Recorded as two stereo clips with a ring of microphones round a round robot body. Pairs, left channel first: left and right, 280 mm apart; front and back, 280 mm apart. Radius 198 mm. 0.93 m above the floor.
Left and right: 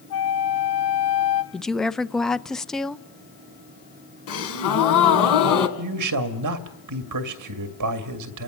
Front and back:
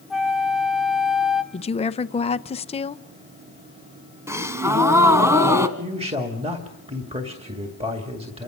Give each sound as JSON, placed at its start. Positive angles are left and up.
{"t": 0.1, "sound": "a flute", "azimuth_deg": 90, "distance_m": 1.6}
{"t": 1.5, "sound": "a woman speaking", "azimuth_deg": 5, "distance_m": 0.7}
{"t": 4.3, "sound": "a gasp", "azimuth_deg": 100, "distance_m": 2.5}
{"t": 5.8, "sound": "a man speaking", "azimuth_deg": -105, "distance_m": 1.9}